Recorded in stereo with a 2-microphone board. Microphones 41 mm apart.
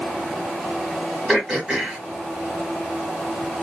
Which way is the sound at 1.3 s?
5° right (ahead or behind).